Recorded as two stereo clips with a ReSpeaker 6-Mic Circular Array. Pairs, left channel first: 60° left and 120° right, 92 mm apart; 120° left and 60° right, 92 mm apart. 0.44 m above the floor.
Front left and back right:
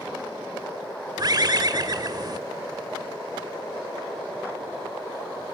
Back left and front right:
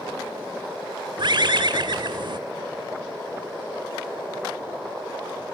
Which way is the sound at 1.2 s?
85° right.